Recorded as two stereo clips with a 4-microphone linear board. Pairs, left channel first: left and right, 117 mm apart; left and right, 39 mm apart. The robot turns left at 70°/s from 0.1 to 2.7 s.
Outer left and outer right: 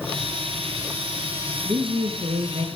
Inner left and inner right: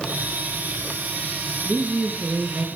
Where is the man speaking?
40° right, 4 m; by 2.7 s 110° right, 4 m.